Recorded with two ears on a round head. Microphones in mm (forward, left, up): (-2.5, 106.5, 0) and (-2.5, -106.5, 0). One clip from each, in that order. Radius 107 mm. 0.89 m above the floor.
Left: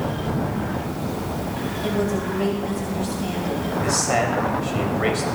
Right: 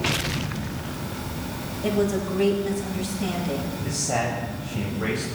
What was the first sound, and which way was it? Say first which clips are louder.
A woman speaking: right 1 dB; 5° right (ahead or behind).